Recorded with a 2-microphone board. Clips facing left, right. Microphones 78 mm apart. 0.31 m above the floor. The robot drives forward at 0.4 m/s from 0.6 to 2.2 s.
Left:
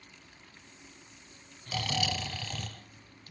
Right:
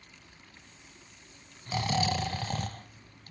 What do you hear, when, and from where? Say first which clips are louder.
1.7 s snoring: right 4 dB; 30° right (ahead or behind), 0.8 m; by 3.3 s 40° right (ahead or behind), 0.6 m